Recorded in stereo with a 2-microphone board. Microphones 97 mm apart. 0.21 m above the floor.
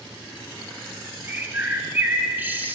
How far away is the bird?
About 0.6 m.